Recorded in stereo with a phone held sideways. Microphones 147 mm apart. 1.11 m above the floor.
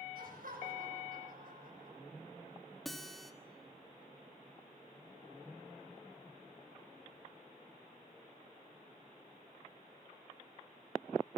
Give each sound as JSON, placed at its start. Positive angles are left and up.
{"t": 0.1, "sound": "laughter", "side_deg": -75, "distance_m": 7.5}
{"t": 2.9, "sound": "a guitar", "side_deg": 0, "distance_m": 1.9}